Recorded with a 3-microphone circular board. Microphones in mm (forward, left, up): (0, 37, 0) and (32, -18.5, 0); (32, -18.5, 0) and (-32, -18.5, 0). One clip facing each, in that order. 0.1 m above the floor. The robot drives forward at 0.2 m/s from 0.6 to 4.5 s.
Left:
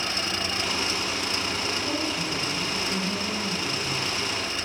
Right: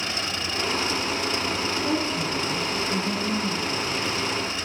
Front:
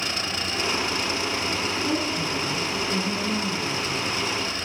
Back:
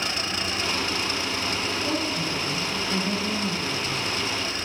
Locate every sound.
1.8 s a woman speaking: 125° right, 4.5 m; by 4.1 s 130° right, 5 m